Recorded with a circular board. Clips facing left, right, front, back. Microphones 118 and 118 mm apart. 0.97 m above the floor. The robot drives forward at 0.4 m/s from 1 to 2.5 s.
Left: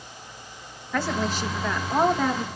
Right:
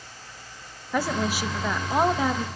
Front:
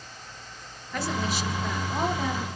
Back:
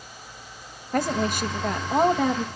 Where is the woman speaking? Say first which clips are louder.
Even, back 5 dB; 165° right, 0.8 m; by 2.5 s 175° right, 1.3 m.